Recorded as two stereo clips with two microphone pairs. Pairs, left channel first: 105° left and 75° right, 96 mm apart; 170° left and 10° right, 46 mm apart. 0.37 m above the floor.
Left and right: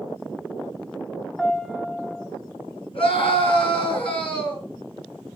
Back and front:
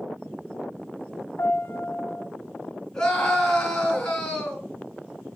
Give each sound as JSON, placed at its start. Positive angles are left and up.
{"t": 1.4, "sound": "a piano", "azimuth_deg": -165, "distance_m": 0.7}
{"t": 2.9, "sound": "a scream", "azimuth_deg": 95, "distance_m": 3.5}